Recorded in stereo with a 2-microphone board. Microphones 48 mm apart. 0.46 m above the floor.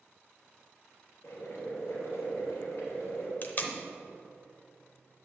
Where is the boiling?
65° left (ahead or behind), 2.5 m.